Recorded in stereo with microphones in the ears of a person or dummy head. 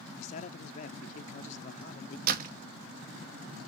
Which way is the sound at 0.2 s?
40° left (ahead or behind).